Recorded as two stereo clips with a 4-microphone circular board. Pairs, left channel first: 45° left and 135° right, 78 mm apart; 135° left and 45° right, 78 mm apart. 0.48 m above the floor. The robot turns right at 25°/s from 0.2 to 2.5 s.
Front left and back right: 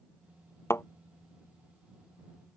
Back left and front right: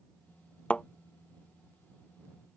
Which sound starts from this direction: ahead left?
A thud, at 0.7 s.